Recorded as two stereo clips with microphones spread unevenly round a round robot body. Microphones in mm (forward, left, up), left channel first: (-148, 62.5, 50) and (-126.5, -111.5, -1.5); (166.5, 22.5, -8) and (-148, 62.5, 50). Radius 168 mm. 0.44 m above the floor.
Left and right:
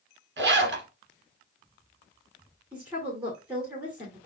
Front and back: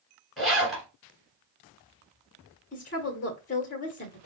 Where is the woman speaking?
30° right, 1.4 m.